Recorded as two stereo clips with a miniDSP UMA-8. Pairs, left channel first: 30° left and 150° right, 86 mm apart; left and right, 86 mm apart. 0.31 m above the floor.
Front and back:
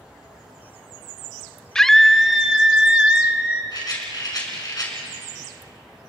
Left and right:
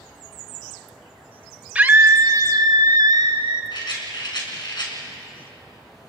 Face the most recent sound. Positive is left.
turn(degrees=65)